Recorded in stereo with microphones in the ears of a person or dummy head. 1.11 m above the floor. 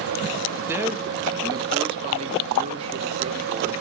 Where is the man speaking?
10° right (ahead or behind), 1.6 m; by 3.7 s 40° right (ahead or behind), 3 m.